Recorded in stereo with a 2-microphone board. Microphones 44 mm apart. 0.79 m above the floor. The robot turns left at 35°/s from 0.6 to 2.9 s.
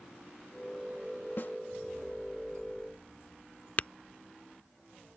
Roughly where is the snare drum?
Left.